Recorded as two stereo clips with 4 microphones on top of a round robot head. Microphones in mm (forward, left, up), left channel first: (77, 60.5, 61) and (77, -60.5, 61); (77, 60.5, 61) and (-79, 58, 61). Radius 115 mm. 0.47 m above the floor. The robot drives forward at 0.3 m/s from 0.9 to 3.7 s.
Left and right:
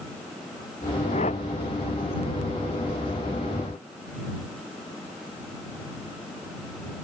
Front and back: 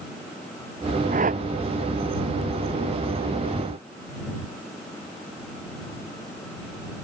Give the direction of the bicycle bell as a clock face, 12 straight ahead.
I don't hear a bicycle bell.